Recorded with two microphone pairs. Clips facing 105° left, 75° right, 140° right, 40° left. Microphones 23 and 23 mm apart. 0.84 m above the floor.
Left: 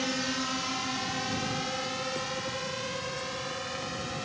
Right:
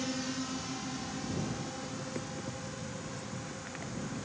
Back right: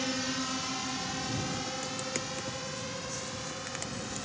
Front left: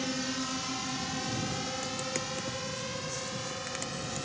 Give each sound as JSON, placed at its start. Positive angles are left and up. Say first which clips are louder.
{"t": 0.0, "sound": "a drone", "louder": "left 5 dB, back right 1 dB", "azimuth_deg": 140}